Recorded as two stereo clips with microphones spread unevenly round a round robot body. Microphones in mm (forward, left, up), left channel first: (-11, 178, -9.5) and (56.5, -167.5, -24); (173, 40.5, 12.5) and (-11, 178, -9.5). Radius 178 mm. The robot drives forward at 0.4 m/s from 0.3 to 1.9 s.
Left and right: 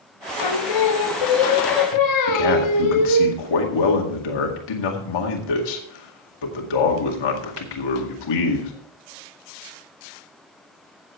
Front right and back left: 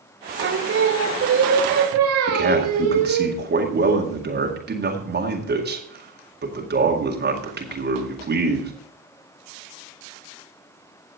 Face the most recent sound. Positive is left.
turn(degrees=110)